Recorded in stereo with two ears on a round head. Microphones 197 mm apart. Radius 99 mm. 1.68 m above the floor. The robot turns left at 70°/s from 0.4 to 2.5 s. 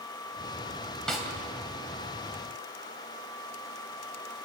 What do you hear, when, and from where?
1.1 s a snare drum: 5° left (ahead or behind), 2.5 m; by 1.3 s 10° right (ahead or behind), 2.5 m